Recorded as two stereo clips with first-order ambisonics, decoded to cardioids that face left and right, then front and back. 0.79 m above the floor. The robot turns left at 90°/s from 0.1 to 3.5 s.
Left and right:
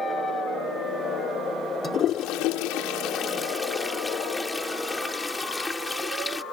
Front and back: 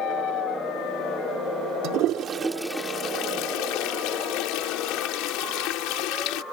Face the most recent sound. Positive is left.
turn(degrees=10)